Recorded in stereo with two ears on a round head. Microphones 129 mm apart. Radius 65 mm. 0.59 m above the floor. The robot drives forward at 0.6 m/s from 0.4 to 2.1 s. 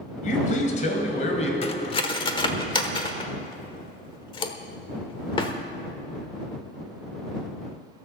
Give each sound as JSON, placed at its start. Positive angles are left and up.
{"t": 0.2, "sound": "a man speaking", "side_deg": 60, "distance_m": 2.5}
{"t": 1.6, "sound": "cutlery clinking", "side_deg": 45, "distance_m": 1.0}